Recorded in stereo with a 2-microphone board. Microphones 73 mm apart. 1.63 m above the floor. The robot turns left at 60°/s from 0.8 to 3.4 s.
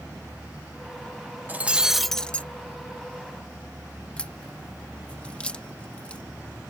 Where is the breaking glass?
150° right; by 2.5 s 155° left.